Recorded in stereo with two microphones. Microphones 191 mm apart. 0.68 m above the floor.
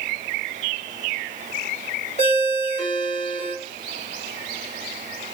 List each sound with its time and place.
2.2 s a ringtone: 35° left (ahead or behind), 1.5 m